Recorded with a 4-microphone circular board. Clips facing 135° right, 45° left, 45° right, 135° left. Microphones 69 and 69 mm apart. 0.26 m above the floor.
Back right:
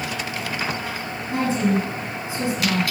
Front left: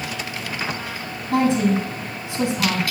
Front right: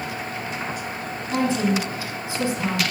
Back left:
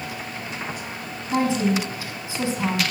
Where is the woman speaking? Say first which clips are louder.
Front left 3 dB, back left 1 dB; 65° left, 8 m.